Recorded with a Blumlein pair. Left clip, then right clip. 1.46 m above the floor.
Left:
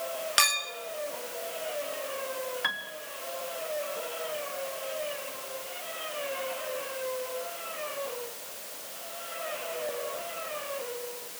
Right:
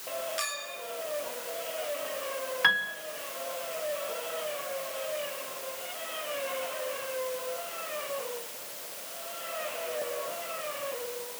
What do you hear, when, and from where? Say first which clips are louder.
0.4 s a clink: left 9 dB; 55° left, 1.4 m
2.6 s a piano: right 9 dB; 15° right, 1.4 m